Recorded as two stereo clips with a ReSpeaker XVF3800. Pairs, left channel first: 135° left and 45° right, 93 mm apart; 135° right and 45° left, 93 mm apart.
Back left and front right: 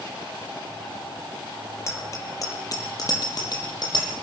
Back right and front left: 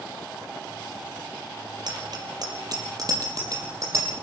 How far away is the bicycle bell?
About 5.5 m.